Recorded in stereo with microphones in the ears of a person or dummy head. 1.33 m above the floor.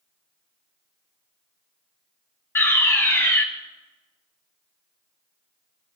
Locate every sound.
2.5 s a fire alarm: 10° left (ahead or behind), 1.0 m